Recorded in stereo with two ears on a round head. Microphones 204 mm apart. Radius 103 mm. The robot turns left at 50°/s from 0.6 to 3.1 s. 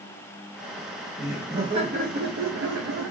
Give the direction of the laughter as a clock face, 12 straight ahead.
12 o'clock.